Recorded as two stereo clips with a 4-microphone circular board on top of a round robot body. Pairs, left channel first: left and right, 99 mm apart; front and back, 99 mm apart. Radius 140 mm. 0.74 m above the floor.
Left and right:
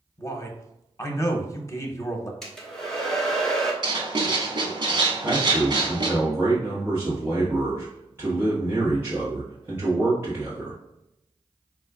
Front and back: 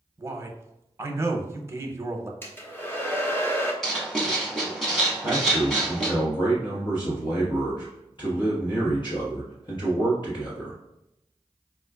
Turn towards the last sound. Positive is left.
turn(degrees=-25)